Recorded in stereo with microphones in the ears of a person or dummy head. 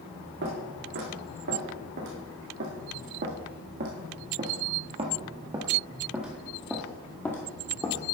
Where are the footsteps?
70° right (ahead or behind), 3.5 m; by 8.1 s 25° left (ahead or behind), 1.6 m.